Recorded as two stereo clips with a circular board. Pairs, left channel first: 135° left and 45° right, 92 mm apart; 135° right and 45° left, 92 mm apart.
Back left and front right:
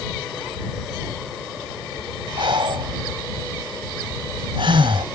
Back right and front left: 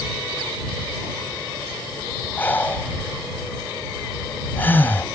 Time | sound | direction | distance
2.4 | breathing | 65° right | ?